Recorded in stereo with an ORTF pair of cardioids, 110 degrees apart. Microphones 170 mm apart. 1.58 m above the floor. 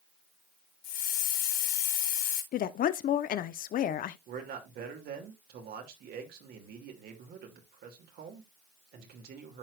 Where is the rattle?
No rattle in this recording.